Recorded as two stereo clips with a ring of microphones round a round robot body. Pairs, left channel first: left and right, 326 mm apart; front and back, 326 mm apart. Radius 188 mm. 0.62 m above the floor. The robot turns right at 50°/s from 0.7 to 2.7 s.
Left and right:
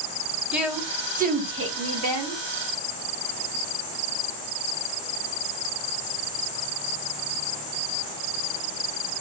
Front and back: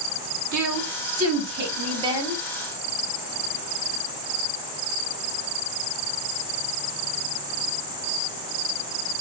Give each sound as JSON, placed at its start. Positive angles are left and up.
{"t": 0.5, "sound": "a woman speaking", "azimuth_deg": -175, "distance_m": 1.3}